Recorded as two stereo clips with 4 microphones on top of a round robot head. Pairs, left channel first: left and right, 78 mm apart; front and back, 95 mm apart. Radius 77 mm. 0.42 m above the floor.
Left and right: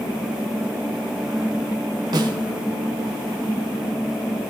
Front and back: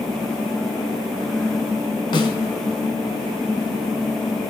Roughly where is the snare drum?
Ahead right.